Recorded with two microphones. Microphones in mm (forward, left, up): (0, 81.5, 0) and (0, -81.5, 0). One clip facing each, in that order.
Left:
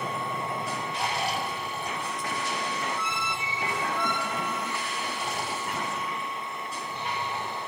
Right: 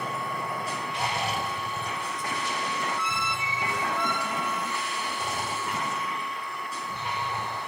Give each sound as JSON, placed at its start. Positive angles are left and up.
{"t": 0.9, "sound": "snoring", "side_deg": -50, "distance_m": 5.5}